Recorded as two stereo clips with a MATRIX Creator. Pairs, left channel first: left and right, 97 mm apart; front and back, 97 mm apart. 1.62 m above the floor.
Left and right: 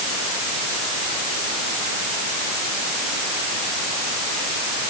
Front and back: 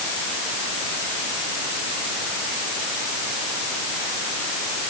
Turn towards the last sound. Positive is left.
No sound to turn to.